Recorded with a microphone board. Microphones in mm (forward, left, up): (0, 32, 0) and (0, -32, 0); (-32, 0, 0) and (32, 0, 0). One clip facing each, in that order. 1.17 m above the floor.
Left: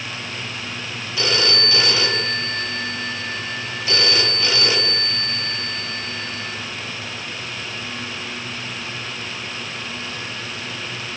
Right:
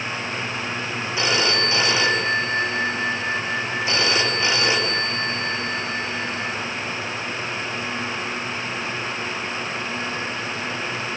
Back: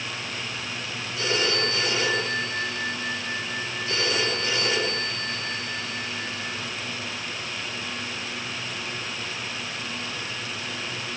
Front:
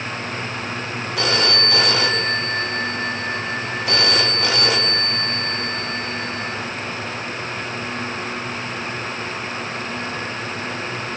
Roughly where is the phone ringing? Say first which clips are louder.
Even, front 4 dB; ahead right.